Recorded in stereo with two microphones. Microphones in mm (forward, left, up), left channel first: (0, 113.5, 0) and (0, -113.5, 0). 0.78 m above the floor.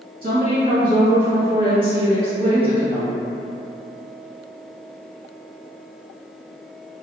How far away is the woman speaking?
About 1.4 m.